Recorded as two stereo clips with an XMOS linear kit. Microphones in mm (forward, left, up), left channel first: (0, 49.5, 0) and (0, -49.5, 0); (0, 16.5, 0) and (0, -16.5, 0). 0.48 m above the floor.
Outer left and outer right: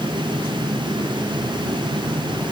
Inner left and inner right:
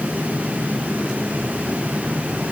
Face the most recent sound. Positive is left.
No sound to turn to.